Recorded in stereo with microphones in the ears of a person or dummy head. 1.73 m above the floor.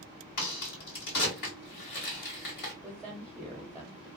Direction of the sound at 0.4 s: 45° left (ahead or behind).